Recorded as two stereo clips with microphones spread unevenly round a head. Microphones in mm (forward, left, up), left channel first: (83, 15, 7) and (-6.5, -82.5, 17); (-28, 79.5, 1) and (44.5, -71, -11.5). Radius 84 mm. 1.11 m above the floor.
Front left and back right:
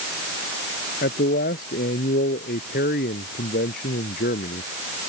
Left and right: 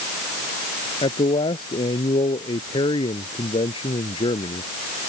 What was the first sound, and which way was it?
A man speaking, 55° left.